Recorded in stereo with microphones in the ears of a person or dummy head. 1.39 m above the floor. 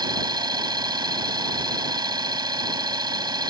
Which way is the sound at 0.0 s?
25° right (ahead or behind).